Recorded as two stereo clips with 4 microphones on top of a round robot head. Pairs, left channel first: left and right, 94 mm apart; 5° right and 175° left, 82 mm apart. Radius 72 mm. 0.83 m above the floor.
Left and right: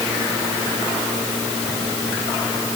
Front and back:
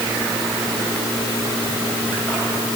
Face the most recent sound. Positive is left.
No sound to turn to.